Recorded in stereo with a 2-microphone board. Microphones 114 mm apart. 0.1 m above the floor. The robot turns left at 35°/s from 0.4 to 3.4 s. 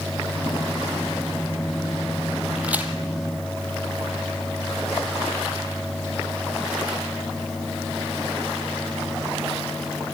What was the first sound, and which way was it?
A crack, 10° right (ahead or behind).